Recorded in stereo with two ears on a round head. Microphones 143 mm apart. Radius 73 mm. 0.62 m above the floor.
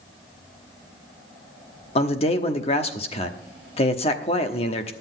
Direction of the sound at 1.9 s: 35° left (ahead or behind).